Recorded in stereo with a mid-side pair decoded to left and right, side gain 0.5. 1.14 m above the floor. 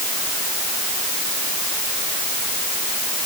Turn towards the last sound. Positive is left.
No sound to turn to.